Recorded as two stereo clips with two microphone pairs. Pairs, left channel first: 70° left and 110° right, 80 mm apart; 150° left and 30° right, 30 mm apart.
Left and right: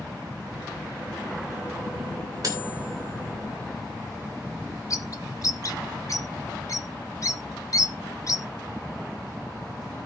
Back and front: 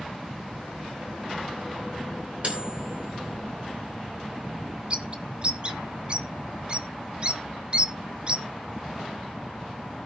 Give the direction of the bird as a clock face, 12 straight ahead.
11 o'clock.